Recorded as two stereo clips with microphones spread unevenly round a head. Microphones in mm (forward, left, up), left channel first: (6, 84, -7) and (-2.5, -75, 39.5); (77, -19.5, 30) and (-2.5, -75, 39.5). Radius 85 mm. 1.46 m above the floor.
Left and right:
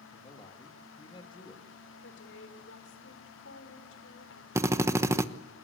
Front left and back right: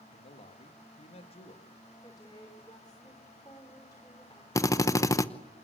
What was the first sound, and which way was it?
A man speaking, 20° left.